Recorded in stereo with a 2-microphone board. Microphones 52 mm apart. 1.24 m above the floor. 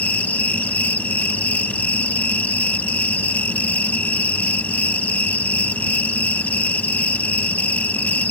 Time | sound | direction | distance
0.0 | an insect | 30° left (ahead or behind) | ?